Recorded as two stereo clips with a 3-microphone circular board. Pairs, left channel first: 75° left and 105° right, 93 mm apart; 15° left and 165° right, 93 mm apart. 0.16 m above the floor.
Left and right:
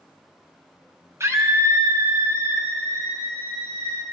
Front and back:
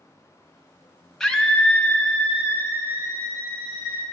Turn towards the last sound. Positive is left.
turn(degrees=-45)